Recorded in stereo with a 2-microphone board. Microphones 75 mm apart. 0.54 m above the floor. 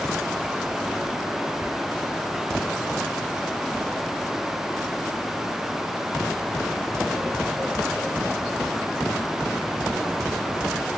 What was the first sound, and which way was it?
Whispering, 30° right (ahead or behind).